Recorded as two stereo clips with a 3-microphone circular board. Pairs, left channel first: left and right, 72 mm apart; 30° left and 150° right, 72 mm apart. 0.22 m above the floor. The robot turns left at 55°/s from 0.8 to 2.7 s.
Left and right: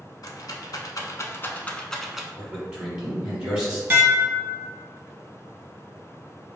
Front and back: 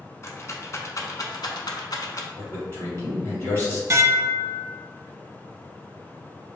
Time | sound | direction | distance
0.2 | a rattle | 70° left | 0.5 m
2.4 | a man speaking | straight ahead | 2.0 m
3.9 | dishes clattering | 135° right | 0.8 m